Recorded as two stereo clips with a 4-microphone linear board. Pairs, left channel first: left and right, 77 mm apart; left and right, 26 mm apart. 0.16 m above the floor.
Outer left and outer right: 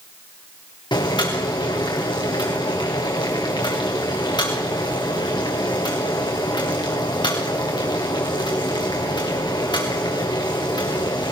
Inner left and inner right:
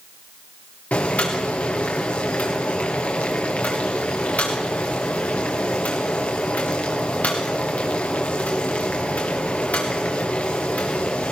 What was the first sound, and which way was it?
Boiling, 70° left (ahead or behind).